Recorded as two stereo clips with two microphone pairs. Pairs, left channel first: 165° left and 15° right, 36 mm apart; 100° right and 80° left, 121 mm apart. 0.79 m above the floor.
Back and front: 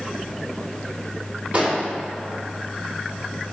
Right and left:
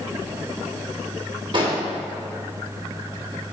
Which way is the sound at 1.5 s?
35° left.